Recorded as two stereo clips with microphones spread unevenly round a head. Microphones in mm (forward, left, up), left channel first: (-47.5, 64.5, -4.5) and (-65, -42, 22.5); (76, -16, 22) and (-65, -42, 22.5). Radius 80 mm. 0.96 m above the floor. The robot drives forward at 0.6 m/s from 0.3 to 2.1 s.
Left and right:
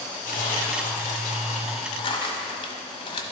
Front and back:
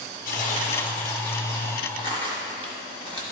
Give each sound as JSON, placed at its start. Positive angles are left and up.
{"t": 0.2, "sound": "tearing paper", "azimuth_deg": 50, "distance_m": 0.9}